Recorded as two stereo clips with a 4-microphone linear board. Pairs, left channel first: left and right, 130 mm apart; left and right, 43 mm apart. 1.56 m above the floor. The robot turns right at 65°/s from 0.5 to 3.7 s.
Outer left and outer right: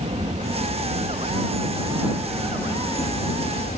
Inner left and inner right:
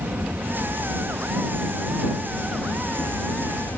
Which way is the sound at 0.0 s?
120° right.